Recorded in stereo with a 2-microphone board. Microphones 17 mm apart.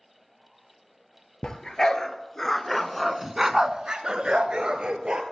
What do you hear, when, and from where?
1.4 s a dog barking: 35° left (ahead or behind), 1.2 m; by 5.2 s 65° right (ahead or behind), 1.2 m